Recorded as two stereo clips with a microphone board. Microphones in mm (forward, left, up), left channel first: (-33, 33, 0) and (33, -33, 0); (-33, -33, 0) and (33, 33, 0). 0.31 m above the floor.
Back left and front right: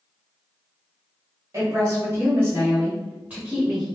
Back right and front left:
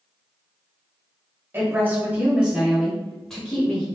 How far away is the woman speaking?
About 1.9 m.